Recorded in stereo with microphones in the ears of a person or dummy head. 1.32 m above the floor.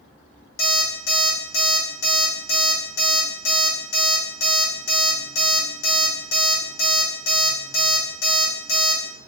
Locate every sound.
0.6 s an alarm clock: 80° left, 2 m